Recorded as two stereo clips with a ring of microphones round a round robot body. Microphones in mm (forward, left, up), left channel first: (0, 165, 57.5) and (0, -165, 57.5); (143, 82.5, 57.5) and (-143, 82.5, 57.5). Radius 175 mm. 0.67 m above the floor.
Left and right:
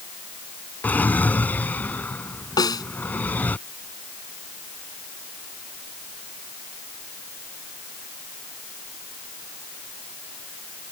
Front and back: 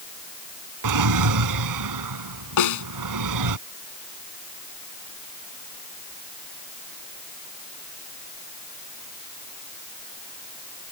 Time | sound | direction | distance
0.8 | a drawer | 175° left | ?
2.6 | a snare drum | 10° left | ?